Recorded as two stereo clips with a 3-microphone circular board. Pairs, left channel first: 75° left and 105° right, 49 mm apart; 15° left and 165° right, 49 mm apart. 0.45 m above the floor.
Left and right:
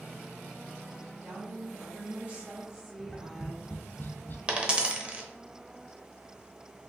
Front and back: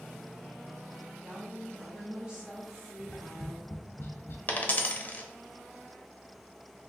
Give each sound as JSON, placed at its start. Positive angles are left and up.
{"t": 1.2, "sound": "a woman speaking", "azimuth_deg": -110, "distance_m": 2.0}
{"t": 3.0, "sound": "tapping", "azimuth_deg": 40, "distance_m": 0.6}
{"t": 4.5, "sound": "a dropped coin", "azimuth_deg": -35, "distance_m": 0.6}